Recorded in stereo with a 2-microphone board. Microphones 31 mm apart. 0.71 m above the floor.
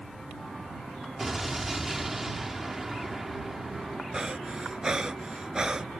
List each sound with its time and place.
1.2 s an explosion: 10° right (ahead or behind)
4.1 s breathing: 20° right (ahead or behind)